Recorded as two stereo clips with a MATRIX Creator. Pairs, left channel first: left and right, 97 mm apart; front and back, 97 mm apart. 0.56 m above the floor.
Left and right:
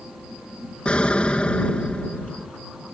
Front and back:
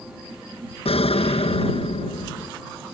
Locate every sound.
0.8 s an explosion: 10° left